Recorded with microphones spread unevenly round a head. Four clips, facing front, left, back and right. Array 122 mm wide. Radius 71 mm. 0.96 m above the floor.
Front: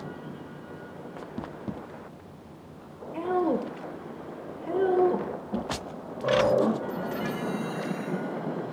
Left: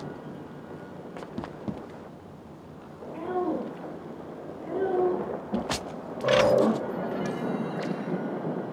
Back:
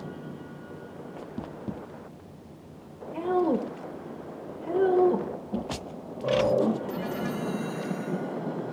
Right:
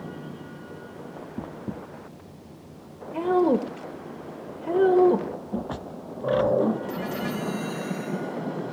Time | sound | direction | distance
3.1 | a woman speaking | 85° right | 0.8 m